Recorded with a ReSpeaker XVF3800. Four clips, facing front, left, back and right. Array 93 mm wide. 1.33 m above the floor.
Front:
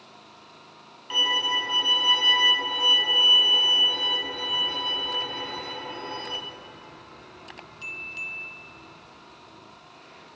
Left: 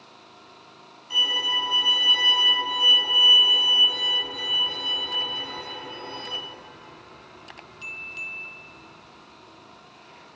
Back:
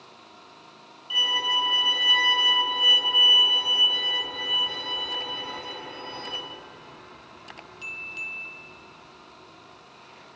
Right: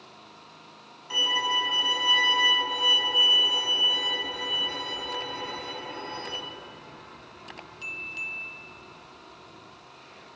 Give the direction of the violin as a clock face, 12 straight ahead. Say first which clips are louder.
Even, even; 1 o'clock.